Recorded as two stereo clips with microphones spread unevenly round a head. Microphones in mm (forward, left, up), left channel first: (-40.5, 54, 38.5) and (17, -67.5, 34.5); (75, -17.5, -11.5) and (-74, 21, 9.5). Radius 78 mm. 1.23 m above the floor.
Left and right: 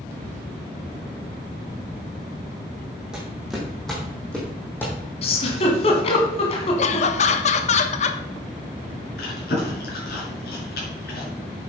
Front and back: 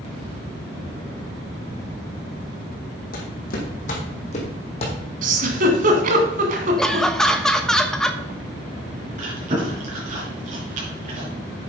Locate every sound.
3.1 s footsteps: 20° left, 3.5 m; by 5.0 s 40° left, 4 m
5.2 s a giggle: 155° left, 1.9 m
6.8 s laughter: 70° left, 1.1 m
9.2 s chewing: 125° left, 5 m